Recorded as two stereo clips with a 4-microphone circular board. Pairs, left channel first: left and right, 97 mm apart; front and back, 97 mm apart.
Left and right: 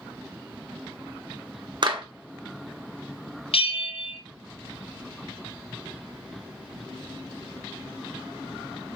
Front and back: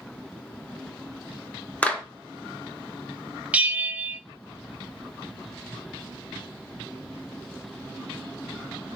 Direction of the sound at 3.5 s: 105° left.